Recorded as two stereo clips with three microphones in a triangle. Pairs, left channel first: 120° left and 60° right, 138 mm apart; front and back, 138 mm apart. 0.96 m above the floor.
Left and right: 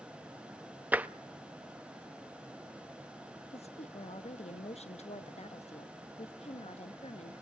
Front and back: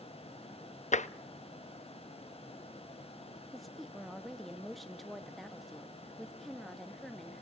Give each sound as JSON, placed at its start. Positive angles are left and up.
{"t": 0.9, "sound": "tapping", "azimuth_deg": 20, "distance_m": 0.6}
{"t": 3.5, "sound": "a woman speaking", "azimuth_deg": 90, "distance_m": 1.2}